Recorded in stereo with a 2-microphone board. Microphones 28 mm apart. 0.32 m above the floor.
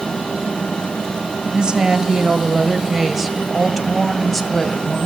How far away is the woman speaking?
About 1.9 m.